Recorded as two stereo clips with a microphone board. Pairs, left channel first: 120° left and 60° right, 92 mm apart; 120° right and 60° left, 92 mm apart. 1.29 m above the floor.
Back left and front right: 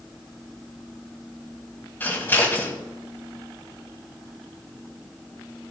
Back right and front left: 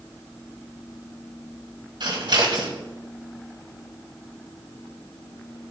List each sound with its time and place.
2.0 s scissors: 60° left, 2 m